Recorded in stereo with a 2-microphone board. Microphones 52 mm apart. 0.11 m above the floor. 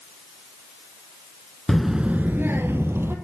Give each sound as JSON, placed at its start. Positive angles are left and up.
{"t": 1.7, "sound": "a child speaking", "side_deg": 10, "distance_m": 0.7}